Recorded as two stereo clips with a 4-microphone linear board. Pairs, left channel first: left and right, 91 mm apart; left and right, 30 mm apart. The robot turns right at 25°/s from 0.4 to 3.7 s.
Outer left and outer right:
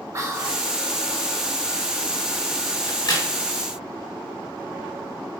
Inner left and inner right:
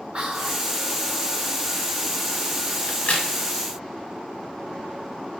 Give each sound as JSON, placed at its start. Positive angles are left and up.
{"t": 0.1, "sound": "whispering", "side_deg": -35, "distance_m": 0.8}
{"t": 2.9, "sound": "a crack", "side_deg": 55, "distance_m": 0.8}